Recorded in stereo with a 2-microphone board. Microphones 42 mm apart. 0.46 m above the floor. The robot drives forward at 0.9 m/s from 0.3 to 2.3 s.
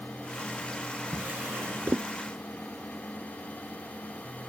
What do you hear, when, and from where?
1.1 s a drawer: 40° right (ahead or behind); by 2.1 s 55° right (ahead or behind)